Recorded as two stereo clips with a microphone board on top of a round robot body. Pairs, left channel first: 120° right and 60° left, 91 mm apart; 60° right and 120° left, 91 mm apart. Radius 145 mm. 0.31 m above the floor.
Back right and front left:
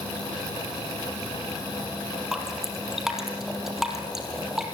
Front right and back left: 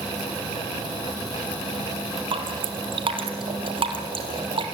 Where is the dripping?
145° left, 3.5 m.